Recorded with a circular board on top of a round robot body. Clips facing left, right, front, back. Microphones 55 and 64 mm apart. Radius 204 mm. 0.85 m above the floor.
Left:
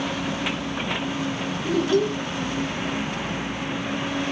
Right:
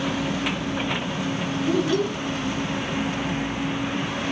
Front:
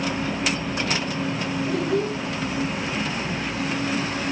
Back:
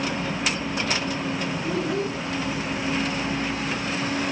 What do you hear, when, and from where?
1.6 s a child speaking: 80° left, 5.5 m